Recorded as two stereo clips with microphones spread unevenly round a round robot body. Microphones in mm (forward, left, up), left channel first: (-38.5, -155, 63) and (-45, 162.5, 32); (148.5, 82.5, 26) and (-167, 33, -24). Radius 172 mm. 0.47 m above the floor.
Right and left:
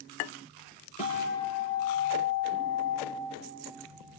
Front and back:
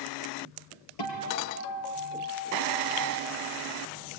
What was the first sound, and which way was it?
A guitar, 15° right.